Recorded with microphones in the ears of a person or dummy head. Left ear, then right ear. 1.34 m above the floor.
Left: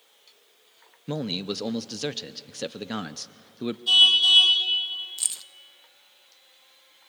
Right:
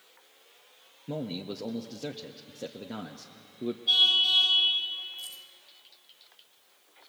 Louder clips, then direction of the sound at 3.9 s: Left 6 dB; 75° left (ahead or behind).